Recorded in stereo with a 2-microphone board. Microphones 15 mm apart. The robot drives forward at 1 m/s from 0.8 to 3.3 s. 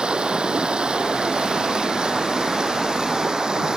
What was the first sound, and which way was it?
Running water, 75° right (ahead or behind).